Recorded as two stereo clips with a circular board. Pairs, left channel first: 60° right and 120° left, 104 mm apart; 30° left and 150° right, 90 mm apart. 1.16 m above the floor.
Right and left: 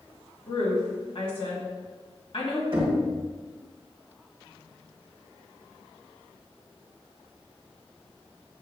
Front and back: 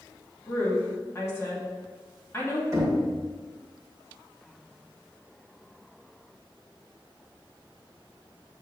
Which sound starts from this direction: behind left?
Knocking, at 2.7 s.